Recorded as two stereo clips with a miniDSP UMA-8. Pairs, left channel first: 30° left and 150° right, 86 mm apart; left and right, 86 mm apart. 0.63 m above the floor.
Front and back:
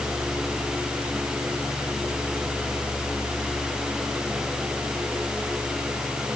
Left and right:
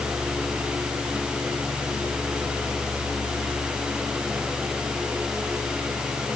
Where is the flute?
No flute in this recording.